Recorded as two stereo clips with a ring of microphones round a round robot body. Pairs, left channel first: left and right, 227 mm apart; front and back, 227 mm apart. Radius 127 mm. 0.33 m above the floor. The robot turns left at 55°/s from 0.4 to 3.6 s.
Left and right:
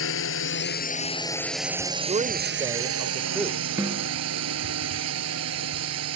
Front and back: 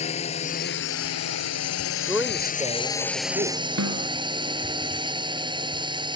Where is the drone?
65° left; by 6.2 s 110° right.